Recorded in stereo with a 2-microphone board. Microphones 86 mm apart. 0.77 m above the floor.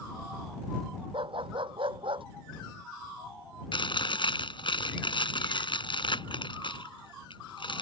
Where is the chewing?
70° left (ahead or behind).